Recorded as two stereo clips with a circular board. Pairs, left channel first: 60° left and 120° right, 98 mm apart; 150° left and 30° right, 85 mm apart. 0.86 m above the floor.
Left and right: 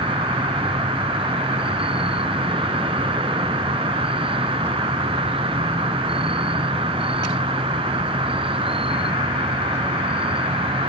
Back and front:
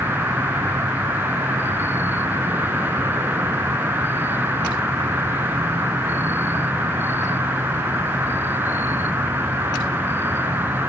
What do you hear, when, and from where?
0.0 s an insect: 95° right